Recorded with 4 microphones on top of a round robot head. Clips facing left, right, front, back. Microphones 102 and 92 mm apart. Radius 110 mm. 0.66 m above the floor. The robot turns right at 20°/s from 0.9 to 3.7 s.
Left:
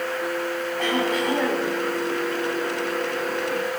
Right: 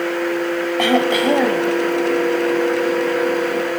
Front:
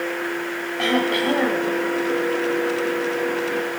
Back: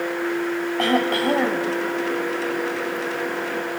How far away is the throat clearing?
About 1.1 m.